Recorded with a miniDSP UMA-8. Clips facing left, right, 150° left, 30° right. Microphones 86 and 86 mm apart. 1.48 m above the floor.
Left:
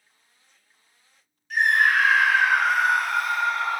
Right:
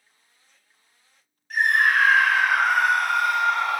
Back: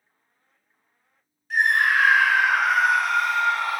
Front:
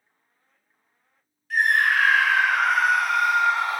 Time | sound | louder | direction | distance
1.5 | a scream | even, even | 140° right | 1.7 m